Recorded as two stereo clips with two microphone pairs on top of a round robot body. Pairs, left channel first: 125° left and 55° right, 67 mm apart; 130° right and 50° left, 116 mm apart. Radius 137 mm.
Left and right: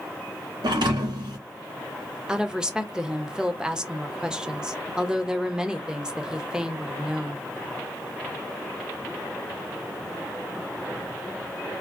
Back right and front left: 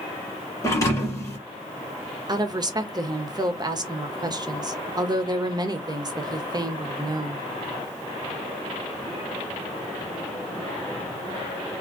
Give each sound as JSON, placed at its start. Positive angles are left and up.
{"t": 0.6, "sound": "a thud", "azimuth_deg": -65, "distance_m": 1.9}
{"t": 2.3, "sound": "a woman speaking", "azimuth_deg": 25, "distance_m": 1.4}